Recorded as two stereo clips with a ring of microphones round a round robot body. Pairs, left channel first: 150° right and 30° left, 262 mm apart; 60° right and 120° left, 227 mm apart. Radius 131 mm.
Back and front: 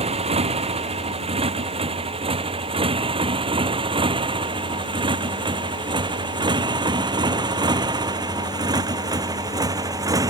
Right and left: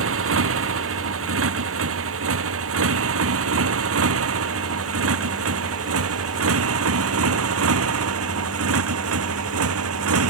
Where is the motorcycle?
100° left; by 10.3 s 105° left.